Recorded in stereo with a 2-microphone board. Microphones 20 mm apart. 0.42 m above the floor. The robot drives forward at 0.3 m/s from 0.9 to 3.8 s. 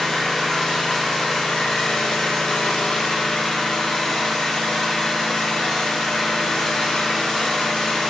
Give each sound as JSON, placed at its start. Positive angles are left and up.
{"t": 0.0, "sound": "an engine running", "side_deg": 40, "distance_m": 0.7}